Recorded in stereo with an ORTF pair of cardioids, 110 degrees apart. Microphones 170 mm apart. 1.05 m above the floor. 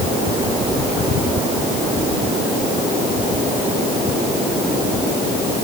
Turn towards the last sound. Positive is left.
No sound to turn to.